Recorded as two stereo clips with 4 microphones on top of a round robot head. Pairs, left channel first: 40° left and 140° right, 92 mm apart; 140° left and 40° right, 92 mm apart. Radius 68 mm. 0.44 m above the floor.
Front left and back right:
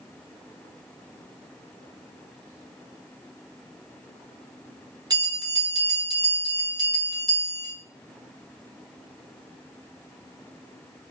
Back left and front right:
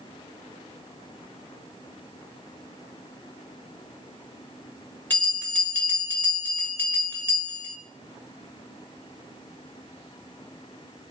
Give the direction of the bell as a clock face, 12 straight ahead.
5 o'clock.